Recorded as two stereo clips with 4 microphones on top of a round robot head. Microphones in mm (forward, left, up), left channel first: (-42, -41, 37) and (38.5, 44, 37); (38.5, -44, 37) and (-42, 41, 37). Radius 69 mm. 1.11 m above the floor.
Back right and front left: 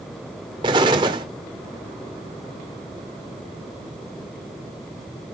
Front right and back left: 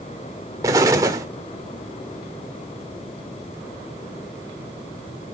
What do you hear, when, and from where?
0.6 s an explosion: 80° left, 0.9 m